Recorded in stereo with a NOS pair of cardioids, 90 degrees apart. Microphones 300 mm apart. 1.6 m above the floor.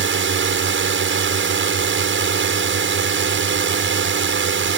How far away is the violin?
I don't hear a violin.